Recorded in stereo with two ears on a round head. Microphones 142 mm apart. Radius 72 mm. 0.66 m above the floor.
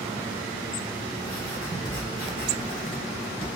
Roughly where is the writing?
Left.